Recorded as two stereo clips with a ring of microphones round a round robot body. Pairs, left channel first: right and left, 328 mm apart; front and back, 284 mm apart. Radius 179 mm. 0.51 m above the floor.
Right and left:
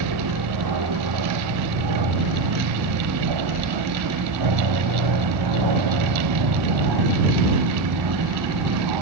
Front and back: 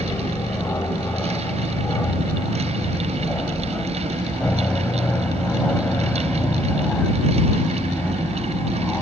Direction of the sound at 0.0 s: 80° left.